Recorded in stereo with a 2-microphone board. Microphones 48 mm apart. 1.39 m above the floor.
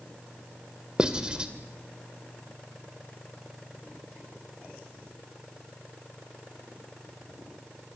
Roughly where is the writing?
Right.